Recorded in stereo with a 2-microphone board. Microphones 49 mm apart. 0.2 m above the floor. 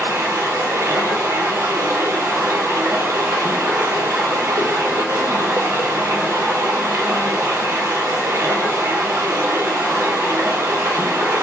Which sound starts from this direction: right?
Running water, at 0.0 s.